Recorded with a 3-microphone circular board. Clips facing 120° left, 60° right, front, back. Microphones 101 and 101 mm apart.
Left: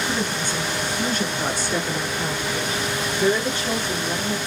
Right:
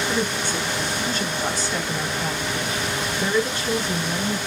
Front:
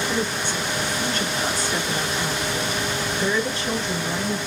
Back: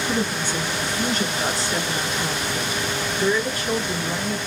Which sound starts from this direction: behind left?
A woman speaking, at 0.1 s.